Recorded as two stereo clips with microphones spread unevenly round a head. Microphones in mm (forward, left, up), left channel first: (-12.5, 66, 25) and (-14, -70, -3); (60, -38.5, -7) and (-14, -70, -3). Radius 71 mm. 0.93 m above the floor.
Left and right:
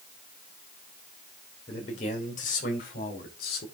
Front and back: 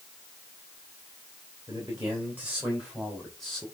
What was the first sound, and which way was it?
A man speaking, 135° left.